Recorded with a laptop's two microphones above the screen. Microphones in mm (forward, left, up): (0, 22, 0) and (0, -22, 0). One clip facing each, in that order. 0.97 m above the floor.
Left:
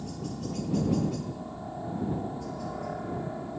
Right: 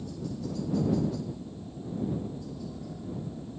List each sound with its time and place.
0.0 s a helicopter: 60° left (ahead or behind)